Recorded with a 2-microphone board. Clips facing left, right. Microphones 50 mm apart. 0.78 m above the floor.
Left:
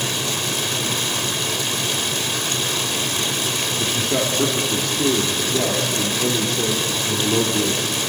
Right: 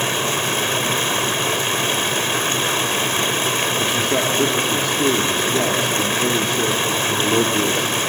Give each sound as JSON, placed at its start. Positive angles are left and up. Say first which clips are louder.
{"t": 0.0, "sound": "running water", "louder": "right 4 dB", "side_deg": -35, "distance_m": 1.0}
{"t": 3.8, "sound": "a man speaking", "louder": "even", "side_deg": -10, "distance_m": 1.8}